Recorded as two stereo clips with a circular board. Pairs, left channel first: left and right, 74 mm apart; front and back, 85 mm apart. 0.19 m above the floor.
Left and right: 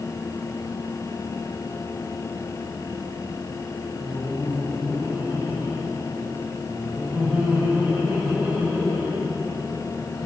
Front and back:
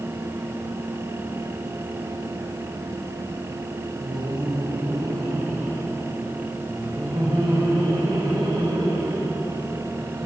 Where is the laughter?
165° right, 7.5 m; by 10.3 s 155° right, 15.5 m.